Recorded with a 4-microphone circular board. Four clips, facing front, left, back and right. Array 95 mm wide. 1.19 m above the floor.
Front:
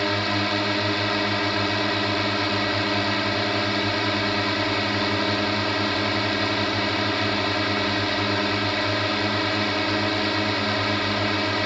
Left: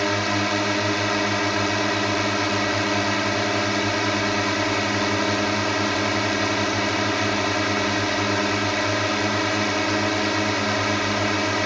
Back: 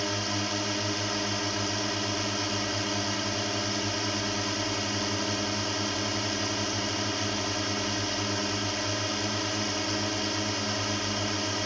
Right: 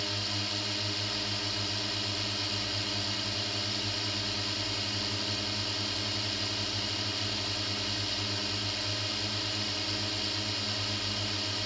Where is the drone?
65° left.